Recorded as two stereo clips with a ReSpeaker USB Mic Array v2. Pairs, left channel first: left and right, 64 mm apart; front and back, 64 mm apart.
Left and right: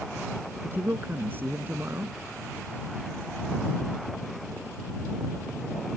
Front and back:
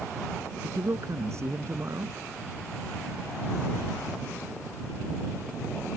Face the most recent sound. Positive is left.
turn(degrees=-145)